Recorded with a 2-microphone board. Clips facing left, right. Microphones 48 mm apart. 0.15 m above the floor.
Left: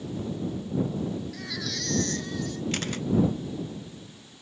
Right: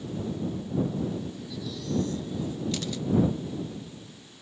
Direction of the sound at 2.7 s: 45° left (ahead or behind).